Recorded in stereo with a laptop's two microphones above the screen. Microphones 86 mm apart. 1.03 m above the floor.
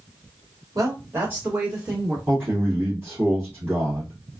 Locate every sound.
0.8 s a woman speaking: 40° right (ahead or behind), 1.0 m; by 2.2 s 5° right (ahead or behind), 1.8 m
2.3 s a man speaking: 20° right (ahead or behind), 1.5 m